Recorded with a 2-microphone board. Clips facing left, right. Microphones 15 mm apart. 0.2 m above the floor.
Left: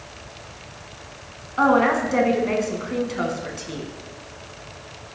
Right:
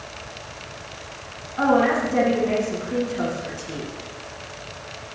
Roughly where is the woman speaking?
Left.